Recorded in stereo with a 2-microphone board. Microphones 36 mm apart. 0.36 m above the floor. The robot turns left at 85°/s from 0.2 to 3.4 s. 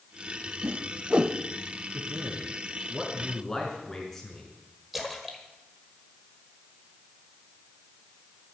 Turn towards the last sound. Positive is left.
turn(degrees=0)  # may be behind; listen again after turning